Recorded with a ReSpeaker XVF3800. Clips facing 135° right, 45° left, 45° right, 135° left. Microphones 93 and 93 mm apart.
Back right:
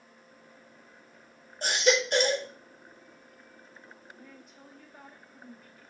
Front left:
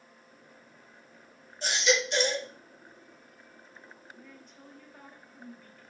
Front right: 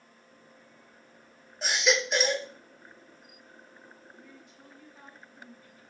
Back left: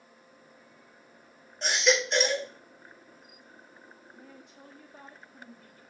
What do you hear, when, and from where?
1.6 s a baby crying: 130° right, 0.8 m
4.2 s a woman speaking: 140° left, 1.2 m